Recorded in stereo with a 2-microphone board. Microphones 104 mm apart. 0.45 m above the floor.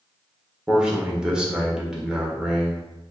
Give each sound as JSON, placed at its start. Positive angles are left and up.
{"t": 0.7, "sound": "a man speaking", "side_deg": -10, "distance_m": 1.0}